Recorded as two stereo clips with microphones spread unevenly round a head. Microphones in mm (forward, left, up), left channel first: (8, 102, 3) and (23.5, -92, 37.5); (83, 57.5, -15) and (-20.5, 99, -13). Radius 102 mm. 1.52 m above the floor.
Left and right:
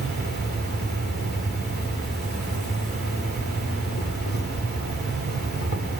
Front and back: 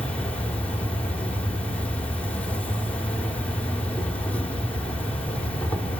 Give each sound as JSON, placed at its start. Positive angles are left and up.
{"t": 0.0, "sound": "an insect", "azimuth_deg": 55, "distance_m": 3.5}